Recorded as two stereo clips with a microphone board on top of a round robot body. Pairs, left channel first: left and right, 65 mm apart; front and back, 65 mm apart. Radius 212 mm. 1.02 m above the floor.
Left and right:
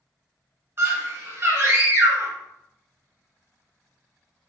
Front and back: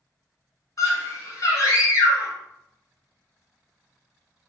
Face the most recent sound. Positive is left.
turn(degrees=-40)